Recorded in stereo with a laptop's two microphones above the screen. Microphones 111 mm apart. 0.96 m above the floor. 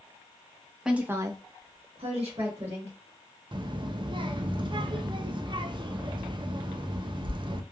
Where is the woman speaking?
5° right (ahead or behind), 0.8 m; by 2.9 s 65° right (ahead or behind), 1.7 m.